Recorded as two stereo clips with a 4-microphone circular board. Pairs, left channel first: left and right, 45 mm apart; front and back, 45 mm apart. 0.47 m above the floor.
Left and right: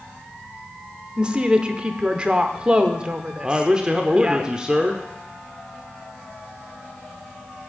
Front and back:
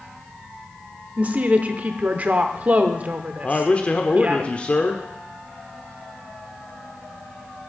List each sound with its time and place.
1.2 s a woman speaking: 145° right, 1.0 m
3.4 s a man speaking: 30° right, 0.9 m